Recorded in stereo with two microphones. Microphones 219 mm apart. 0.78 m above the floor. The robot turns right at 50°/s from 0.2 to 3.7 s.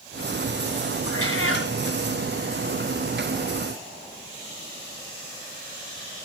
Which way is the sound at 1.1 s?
85° left.